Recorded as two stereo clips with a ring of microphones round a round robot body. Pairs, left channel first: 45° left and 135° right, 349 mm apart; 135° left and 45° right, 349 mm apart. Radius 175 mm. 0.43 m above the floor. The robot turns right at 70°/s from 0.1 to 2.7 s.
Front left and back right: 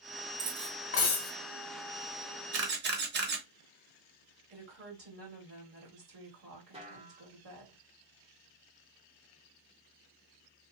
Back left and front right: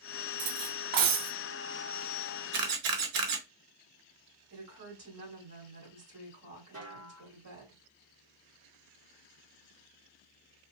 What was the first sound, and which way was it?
Cutlery clinking, 60° right.